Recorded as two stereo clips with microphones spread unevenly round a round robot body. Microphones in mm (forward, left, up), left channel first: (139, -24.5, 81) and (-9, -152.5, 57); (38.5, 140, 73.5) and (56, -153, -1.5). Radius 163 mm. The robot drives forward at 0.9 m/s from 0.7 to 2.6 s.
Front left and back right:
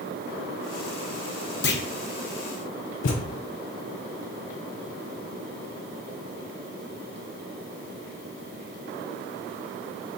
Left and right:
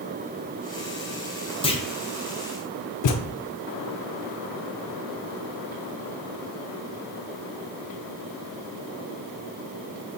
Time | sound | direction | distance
1.6 | a clunk | 15° left | 0.8 m
3.0 | a thud | 65° left | 0.6 m